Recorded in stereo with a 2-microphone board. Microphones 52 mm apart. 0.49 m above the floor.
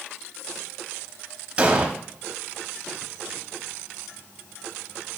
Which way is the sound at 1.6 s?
25° right (ahead or behind).